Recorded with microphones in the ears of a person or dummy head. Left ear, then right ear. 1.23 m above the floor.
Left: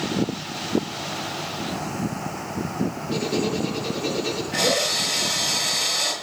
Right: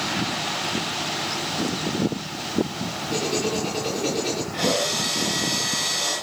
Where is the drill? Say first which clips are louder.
Left 3 dB; 55° left (ahead or behind), 8.5 m.